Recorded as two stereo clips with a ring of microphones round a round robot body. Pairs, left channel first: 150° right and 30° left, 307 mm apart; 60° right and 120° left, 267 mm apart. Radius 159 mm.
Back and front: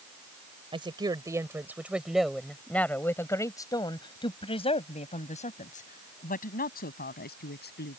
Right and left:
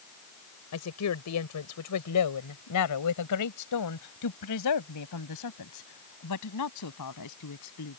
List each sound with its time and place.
0.7 s a woman speaking: 45° right; by 8.0 s 95° right